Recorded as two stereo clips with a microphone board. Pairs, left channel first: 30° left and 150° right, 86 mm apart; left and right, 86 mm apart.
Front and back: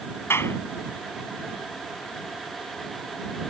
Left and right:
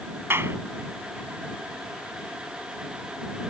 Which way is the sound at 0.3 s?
30° right.